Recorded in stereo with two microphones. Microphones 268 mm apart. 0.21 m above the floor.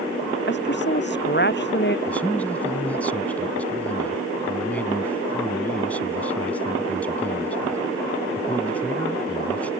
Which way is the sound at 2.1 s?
5° left (ahead or behind).